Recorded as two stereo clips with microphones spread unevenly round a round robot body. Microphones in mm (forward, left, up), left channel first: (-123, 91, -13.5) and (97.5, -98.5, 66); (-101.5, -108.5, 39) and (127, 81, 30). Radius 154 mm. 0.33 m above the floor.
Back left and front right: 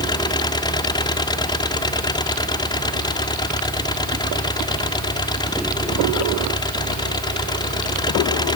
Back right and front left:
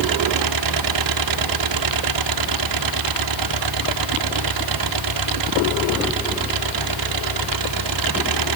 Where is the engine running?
60° left.